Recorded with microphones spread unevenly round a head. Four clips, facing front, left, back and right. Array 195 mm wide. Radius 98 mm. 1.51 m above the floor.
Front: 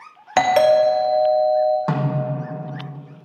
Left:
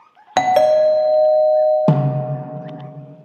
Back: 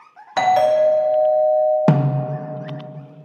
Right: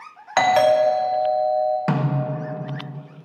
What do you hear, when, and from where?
0.4 s a doorbell: 65° left, 1.3 m
1.9 s a snare drum: 135° left, 0.9 m